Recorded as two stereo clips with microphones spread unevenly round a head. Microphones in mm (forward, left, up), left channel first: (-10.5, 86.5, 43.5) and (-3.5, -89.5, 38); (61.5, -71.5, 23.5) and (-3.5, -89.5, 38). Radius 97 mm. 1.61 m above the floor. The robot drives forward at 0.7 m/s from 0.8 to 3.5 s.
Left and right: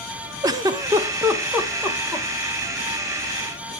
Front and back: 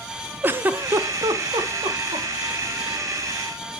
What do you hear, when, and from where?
0.4 s a giggle: 150° right, 0.5 m; by 2.3 s 175° right, 1.4 m